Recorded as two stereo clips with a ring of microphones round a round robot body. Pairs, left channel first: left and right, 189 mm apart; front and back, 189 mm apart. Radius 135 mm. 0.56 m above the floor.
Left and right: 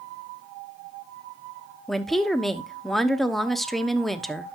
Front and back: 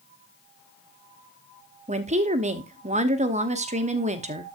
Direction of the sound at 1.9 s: Straight behind.